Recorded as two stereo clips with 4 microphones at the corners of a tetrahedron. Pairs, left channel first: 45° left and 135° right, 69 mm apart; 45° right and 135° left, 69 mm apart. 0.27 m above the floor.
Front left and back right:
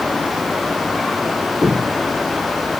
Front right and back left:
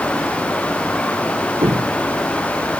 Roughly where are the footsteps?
Behind left.